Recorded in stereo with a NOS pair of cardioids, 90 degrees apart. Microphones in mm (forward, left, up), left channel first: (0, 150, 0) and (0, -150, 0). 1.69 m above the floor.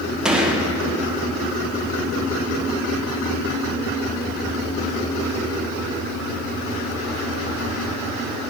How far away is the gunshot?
About 1.3 m.